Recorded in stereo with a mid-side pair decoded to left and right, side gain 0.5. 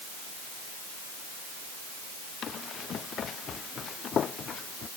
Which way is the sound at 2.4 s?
50° left.